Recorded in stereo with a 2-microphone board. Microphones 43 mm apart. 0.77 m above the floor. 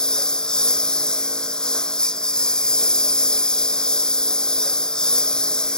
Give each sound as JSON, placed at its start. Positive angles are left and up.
{"t": 0.0, "sound": "a lawn mower", "side_deg": 15}